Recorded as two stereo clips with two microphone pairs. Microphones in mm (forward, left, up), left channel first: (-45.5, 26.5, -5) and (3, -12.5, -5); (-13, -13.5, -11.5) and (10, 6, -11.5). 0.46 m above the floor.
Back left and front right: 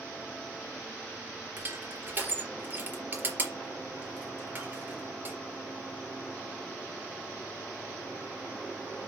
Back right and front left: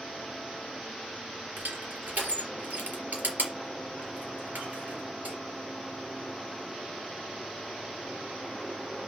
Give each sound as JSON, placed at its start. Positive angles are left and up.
{"t": 1.6, "sound": "crushing", "azimuth_deg": 20, "distance_m": 3.5}